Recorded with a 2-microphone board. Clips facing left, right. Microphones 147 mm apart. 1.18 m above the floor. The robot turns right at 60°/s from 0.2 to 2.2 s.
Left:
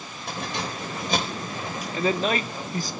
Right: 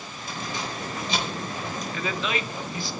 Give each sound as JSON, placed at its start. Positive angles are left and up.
{"t": 0.3, "sound": "keys jangling", "side_deg": 80, "distance_m": 4.5}
{"t": 1.9, "sound": "a man speaking", "side_deg": 30, "distance_m": 1.1}